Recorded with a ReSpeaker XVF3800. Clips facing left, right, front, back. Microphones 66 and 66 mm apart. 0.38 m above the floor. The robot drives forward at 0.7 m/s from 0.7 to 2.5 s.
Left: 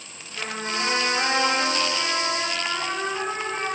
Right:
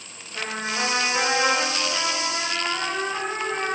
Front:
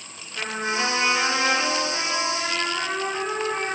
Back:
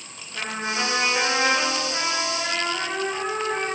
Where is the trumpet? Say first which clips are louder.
Right 1 dB, front 1 dB; 110° right, 2.5 m; by 3.8 s 130° right, 3.5 m.